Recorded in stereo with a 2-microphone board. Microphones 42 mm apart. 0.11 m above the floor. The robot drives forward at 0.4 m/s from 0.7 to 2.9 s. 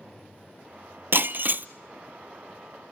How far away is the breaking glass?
About 0.6 m.